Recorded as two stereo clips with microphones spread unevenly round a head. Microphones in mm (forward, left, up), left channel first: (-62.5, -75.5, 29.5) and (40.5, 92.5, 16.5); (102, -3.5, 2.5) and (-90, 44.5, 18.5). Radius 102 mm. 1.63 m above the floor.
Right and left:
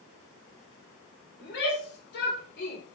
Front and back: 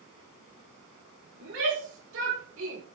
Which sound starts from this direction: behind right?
A shout, at 1.4 s.